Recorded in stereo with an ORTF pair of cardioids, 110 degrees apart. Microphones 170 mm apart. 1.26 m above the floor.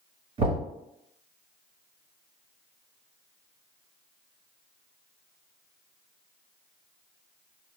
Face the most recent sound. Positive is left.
turn(degrees=-35)